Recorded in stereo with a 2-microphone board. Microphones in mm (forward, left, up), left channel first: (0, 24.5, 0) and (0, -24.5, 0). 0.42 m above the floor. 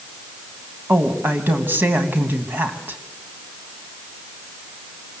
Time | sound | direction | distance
0.9 | a woman speaking | 50° right (ahead or behind) | 2.5 m